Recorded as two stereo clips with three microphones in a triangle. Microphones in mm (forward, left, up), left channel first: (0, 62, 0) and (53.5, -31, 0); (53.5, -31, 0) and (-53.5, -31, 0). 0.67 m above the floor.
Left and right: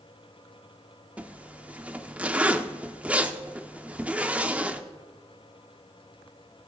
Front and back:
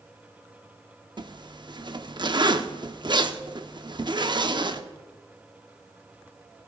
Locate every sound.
1.2 s a zipper: 135° right, 0.7 m